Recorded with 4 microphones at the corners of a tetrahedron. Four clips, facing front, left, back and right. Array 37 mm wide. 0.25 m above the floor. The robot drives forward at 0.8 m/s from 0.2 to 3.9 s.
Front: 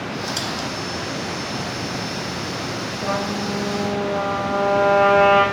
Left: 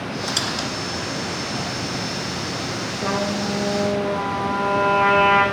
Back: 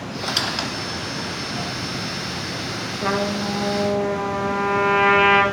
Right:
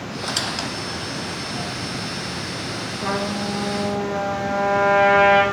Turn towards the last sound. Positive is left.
turn(degrees=-170)